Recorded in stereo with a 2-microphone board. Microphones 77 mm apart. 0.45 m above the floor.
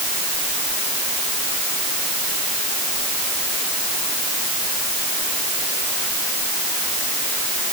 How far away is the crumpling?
No crumpling in this recording.